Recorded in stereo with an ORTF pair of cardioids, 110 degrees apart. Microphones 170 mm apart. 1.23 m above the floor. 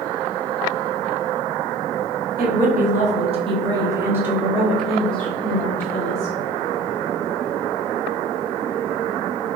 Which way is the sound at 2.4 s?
70° right.